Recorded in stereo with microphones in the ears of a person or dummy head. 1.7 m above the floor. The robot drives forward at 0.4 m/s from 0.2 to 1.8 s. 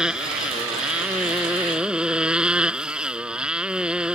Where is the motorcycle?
5° right (ahead or behind).